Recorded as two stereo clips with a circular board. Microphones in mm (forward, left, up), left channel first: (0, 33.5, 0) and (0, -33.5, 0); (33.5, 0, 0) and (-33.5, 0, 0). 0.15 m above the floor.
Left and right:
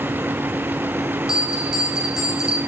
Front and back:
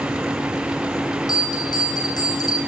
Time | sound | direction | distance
1.3 | a bell | 10° right | 3 m